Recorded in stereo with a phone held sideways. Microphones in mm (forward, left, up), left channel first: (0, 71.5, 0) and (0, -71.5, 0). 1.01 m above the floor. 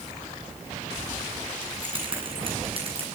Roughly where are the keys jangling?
Right.